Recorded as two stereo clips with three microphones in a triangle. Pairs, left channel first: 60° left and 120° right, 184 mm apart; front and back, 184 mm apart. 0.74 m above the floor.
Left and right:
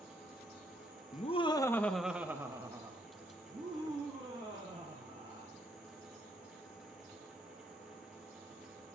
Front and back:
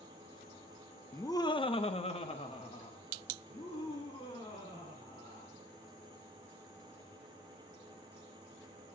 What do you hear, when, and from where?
1.1 s laughter: 70° left, 0.7 m; by 5.5 s 65° right, 3.5 m